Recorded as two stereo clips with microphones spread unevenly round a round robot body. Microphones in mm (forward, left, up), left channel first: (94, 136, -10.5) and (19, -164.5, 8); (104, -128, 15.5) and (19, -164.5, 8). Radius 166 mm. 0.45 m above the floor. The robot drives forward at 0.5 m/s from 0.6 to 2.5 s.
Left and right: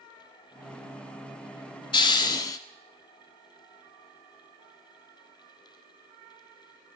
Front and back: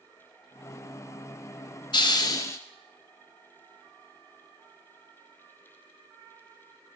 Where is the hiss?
10° left, 0.7 m; by 2.6 s 20° left, 0.6 m.